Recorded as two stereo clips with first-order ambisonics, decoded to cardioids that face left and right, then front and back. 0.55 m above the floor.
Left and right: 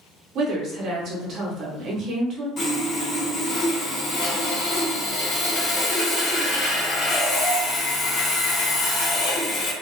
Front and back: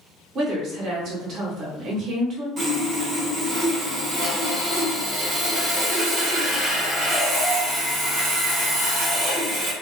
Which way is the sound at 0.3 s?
135° right.